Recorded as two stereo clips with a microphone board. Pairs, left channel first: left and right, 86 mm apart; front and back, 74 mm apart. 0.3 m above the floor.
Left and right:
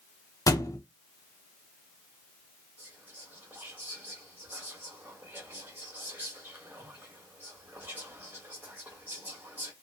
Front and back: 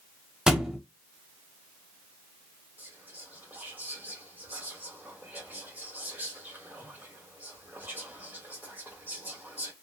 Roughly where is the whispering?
Behind right.